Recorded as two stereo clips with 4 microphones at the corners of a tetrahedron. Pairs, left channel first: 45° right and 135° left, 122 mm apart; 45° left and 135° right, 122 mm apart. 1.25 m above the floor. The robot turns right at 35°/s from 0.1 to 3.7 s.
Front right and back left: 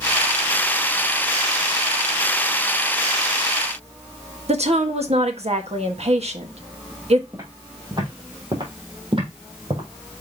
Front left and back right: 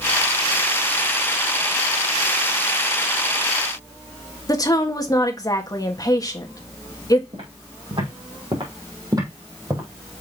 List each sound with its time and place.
4.5 s a woman speaking: 105° left, 1.3 m
7.3 s footsteps: 165° right, 3.5 m; by 9.8 s 160° left, 3 m